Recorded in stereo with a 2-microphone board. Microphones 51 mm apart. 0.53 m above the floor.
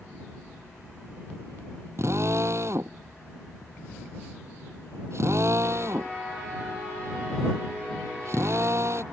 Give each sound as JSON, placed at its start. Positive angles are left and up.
{"t": 2.0, "sound": "a drill", "side_deg": -60}